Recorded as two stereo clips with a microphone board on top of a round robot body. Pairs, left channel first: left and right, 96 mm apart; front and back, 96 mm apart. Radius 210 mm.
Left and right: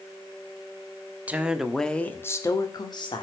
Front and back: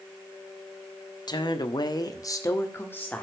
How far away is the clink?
I don't hear a clink.